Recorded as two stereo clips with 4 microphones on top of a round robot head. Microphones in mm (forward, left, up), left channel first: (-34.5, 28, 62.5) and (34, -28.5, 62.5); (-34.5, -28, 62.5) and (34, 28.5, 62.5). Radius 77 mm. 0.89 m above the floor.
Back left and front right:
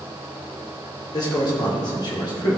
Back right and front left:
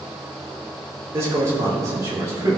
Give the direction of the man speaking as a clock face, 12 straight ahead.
9 o'clock.